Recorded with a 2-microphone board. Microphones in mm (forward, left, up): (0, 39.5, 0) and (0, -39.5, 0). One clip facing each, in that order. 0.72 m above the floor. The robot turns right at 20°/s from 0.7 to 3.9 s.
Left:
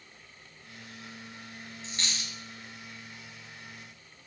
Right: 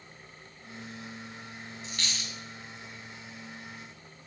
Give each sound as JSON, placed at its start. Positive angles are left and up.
{"t": 1.8, "sound": "a dropped coin", "side_deg": 35, "distance_m": 1.0}